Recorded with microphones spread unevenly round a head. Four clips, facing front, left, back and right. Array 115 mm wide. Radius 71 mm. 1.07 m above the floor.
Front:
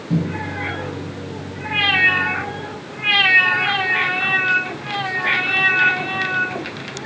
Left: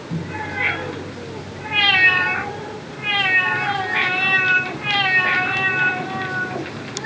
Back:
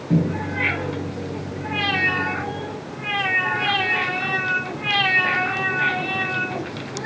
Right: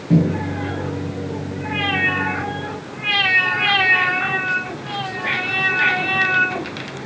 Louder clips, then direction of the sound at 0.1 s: Right 10 dB, back 1 dB; 115° right.